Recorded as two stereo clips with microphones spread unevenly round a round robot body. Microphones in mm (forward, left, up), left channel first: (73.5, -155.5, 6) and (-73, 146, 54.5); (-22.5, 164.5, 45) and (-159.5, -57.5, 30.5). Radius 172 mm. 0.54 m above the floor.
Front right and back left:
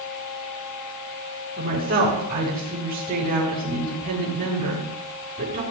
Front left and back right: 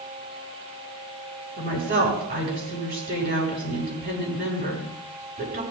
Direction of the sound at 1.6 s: 170° right.